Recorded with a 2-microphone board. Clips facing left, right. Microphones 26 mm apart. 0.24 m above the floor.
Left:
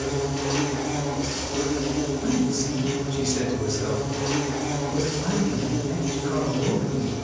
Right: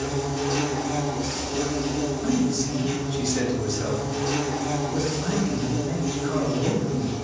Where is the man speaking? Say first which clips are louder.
Right 1 dB; centre (ahead or behind), 1.7 m.